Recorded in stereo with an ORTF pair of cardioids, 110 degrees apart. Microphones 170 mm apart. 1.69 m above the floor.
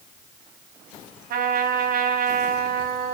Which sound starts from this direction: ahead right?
A trumpet, at 1.3 s.